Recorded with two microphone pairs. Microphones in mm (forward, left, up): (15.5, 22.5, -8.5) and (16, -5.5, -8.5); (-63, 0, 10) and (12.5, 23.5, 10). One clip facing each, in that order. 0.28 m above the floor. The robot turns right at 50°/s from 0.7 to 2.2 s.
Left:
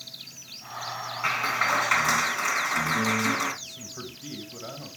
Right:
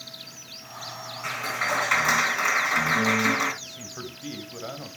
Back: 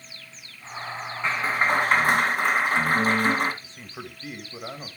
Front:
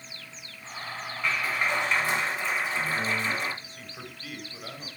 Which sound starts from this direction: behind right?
A man speaking, at 3.6 s.